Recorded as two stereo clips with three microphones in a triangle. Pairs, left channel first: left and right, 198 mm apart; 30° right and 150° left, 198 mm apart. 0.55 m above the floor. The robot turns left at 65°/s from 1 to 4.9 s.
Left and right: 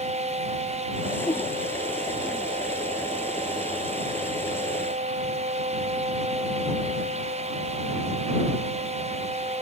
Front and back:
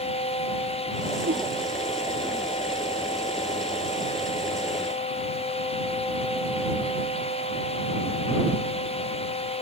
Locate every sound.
1.2 s a whoosh: 160° left; by 1.5 s 145° left